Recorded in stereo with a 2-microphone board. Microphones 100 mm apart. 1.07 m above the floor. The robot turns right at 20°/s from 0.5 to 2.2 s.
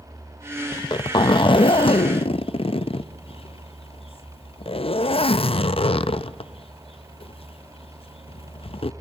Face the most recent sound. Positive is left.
turn(degrees=70)  # may be behind; listen again after turning